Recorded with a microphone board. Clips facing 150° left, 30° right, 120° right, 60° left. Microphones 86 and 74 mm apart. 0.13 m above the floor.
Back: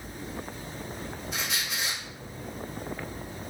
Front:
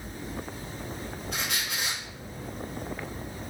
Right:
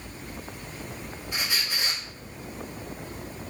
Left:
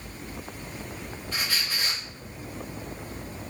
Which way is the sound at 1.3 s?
45° right.